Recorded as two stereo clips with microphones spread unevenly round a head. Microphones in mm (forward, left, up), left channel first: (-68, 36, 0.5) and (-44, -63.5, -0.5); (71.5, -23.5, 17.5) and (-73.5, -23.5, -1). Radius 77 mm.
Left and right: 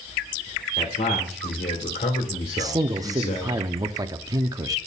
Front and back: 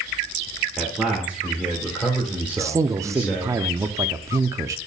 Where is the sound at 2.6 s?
120° right, 0.6 m.